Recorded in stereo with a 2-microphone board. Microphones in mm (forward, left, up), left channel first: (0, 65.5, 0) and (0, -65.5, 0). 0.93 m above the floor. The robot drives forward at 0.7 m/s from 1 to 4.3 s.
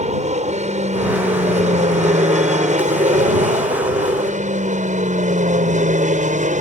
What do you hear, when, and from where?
0.0 s an aircraft: 60° right (ahead or behind); by 6.6 s 70° right (ahead or behind)